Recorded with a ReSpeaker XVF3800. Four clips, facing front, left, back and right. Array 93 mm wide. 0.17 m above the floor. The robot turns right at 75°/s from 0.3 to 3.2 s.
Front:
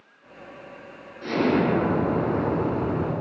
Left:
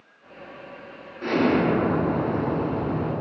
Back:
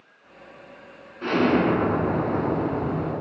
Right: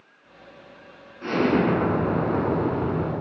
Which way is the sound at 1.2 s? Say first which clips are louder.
Even, back 2 dB; 175° left.